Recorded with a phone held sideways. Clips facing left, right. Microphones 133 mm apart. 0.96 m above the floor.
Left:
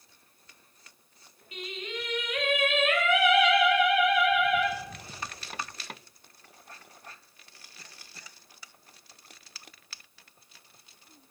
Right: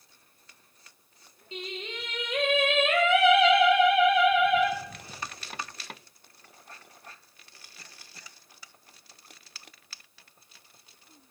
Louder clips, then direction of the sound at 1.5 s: Even; 25° right (ahead or behind).